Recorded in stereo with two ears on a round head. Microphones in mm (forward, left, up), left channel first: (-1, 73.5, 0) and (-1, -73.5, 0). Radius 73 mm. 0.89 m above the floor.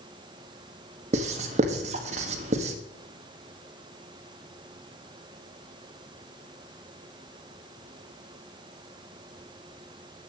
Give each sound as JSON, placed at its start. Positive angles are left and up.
{"t": 1.1, "sound": "writing", "side_deg": -45, "distance_m": 1.5}